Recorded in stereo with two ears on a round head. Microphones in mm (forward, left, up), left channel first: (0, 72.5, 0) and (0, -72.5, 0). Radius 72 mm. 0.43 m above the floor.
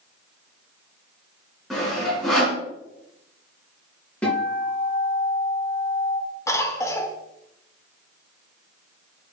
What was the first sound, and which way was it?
Sawing, centre (ahead or behind).